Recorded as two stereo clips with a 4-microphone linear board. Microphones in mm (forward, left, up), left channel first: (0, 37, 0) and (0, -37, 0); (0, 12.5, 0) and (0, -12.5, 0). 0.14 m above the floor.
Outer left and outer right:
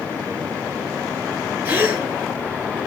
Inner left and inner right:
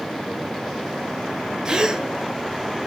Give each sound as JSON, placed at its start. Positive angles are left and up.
{"t": 1.6, "sound": "a gasp", "side_deg": -25, "distance_m": 0.9}